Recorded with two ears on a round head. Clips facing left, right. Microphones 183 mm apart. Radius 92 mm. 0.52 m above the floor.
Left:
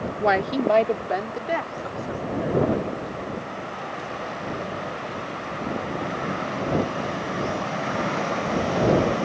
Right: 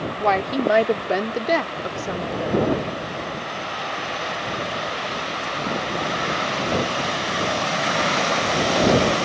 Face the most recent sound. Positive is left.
turn(degrees=-65)  # may be behind; listen again after turning